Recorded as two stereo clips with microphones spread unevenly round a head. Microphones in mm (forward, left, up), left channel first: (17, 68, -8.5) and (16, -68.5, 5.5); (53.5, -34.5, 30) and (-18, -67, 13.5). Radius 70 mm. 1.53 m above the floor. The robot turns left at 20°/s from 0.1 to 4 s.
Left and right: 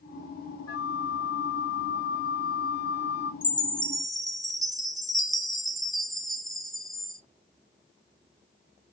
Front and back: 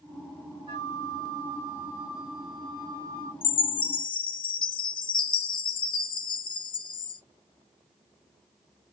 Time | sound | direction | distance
0.7 | a flute | 160° left | 1.2 m
3.4 | a chime | 15° left | 0.7 m